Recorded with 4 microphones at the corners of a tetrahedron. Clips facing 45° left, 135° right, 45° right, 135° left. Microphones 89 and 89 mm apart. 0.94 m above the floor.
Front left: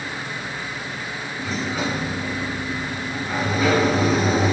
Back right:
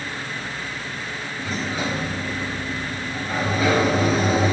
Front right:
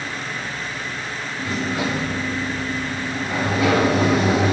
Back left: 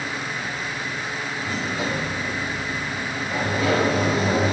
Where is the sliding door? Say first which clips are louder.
Front left 1 dB, front right 4 dB; 40° right, 3 m.